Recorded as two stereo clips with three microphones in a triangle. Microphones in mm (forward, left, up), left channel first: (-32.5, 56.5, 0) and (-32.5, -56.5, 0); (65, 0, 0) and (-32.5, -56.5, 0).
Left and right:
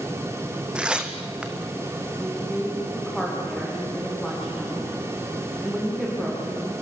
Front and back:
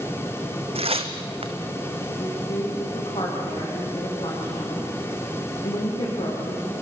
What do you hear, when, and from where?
0.8 s tearing paper: 170° right, 1.6 m
2.2 s a woman speaking: straight ahead, 5 m